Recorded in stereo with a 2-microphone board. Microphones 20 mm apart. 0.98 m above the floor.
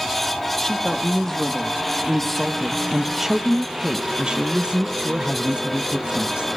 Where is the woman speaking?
25° left (ahead or behind), 2.0 m; by 6.5 s 70° right (ahead or behind), 1.7 m.